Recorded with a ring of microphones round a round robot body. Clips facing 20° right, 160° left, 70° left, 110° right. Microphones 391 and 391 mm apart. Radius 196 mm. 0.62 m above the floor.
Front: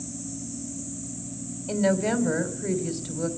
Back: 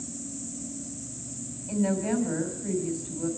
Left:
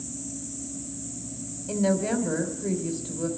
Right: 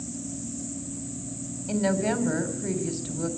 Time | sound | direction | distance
1.7 | a woman speaking | 40° right | 3.5 m